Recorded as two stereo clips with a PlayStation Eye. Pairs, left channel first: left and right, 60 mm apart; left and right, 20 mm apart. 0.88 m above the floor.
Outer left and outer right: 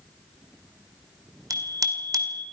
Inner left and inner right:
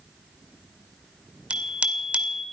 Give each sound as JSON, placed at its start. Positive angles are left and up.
{"t": 1.5, "sound": "a bicycle bell", "side_deg": -85, "distance_m": 2.5}